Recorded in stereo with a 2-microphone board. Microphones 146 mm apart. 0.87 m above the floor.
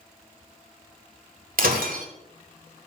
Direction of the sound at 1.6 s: 80° right.